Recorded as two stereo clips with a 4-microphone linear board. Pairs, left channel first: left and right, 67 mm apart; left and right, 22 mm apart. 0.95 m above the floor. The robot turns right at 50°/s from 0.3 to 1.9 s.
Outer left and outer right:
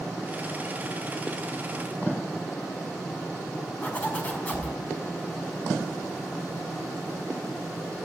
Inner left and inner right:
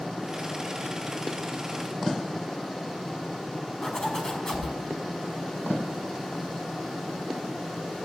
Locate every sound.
3.8 s a zipper: 20° left (ahead or behind), 5 m